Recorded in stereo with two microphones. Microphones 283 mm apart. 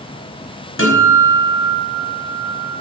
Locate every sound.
0.8 s a guitar: 45° left (ahead or behind), 5 m